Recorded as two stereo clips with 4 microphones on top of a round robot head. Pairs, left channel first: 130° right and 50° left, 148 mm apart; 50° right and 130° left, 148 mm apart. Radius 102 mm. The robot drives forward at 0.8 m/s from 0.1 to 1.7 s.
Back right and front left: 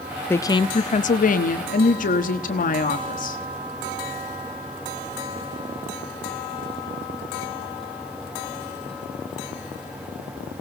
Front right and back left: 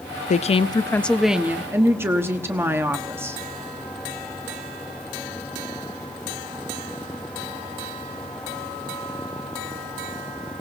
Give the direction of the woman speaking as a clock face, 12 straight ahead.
2 o'clock.